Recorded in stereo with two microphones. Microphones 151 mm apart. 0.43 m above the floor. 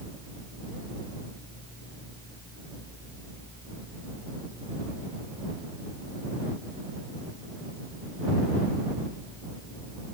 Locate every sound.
Only background noise.